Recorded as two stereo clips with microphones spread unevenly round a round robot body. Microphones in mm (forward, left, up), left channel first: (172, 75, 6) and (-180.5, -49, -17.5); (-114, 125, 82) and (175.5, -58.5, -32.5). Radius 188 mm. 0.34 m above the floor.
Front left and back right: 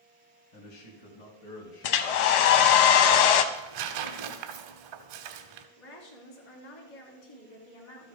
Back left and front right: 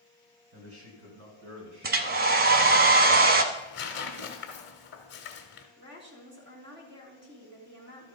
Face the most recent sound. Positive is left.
turn(degrees=20)